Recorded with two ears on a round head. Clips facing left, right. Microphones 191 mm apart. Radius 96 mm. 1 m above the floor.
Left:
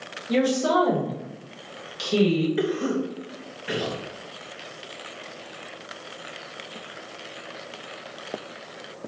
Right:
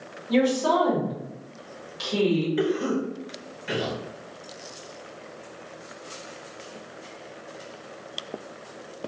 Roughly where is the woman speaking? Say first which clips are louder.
Even; left.